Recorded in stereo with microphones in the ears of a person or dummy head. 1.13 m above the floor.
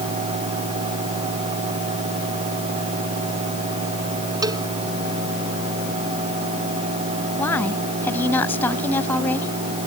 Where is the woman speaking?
20° left (ahead or behind).